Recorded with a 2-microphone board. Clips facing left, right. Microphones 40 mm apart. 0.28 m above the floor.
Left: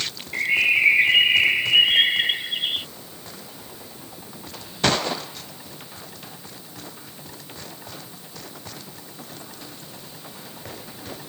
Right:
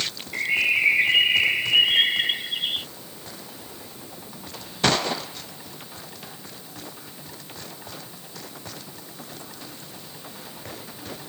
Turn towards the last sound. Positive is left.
turn(degrees=10)  # may be behind; listen again after turning